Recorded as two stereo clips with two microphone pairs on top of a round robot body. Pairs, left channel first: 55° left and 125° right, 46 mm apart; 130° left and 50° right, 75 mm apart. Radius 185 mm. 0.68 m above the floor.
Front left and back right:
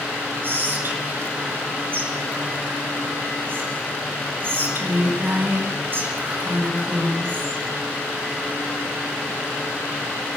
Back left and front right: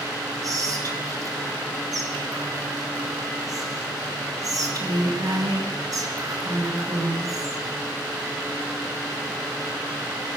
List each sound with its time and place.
0.4 s whispering: 90° right, 8 m